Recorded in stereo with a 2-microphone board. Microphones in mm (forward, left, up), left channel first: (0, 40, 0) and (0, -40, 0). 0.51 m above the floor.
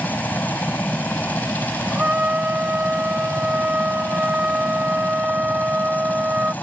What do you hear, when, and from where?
0.0 s a helicopter: 25° left (ahead or behind)
1.9 s a trumpet: 20° right (ahead or behind)